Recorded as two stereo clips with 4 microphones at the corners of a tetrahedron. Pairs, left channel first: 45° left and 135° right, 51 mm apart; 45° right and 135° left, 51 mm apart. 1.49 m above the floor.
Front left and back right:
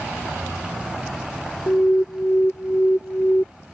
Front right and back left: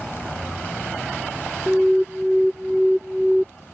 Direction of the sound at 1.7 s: 50° left.